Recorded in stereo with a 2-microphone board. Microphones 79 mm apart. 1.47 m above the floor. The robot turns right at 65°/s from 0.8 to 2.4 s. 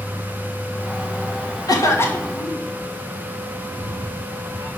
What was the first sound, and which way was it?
A cough, 125° left.